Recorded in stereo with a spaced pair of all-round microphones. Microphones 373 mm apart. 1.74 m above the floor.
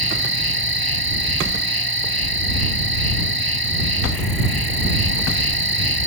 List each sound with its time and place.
0.0 s an insect: 70° right (ahead or behind)